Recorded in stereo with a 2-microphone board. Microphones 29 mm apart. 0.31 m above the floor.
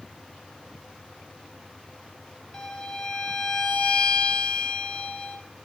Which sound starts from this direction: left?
A violin, at 2.5 s.